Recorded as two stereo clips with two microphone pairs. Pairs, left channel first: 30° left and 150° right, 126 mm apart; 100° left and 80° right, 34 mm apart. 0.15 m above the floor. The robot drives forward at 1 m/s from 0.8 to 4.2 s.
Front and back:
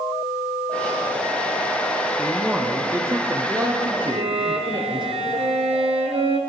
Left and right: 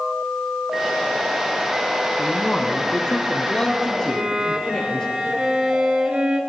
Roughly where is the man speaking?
Behind left.